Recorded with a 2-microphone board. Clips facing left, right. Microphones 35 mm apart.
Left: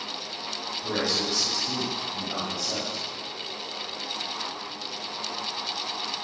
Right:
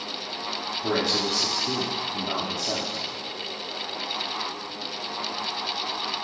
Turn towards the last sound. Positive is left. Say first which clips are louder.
# right 3 dB
turn(degrees=-75)  # may be behind; listen again after turning